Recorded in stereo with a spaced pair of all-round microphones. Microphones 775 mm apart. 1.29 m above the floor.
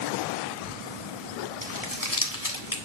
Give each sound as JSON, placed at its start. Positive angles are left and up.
{"t": 1.6, "sound": "crumpling", "side_deg": 25, "distance_m": 1.8}